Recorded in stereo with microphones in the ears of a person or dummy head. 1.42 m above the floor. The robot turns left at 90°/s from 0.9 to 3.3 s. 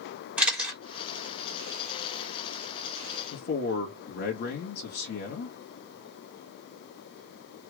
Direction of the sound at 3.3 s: 60° left (ahead or behind).